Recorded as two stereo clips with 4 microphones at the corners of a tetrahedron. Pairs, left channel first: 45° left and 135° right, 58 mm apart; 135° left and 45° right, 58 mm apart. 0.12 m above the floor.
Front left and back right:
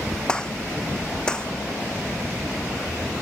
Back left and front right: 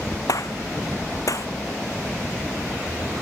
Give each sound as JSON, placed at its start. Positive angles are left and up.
{"t": 0.3, "sound": "a gunshot", "azimuth_deg": 120}